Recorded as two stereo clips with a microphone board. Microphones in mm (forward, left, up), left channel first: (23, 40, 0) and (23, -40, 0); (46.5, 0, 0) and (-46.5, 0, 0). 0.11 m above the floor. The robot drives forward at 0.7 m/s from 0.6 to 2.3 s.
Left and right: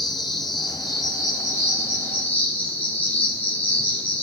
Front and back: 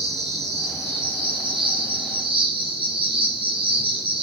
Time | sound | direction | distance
0.0 | an insect | 125° left | 0.8 m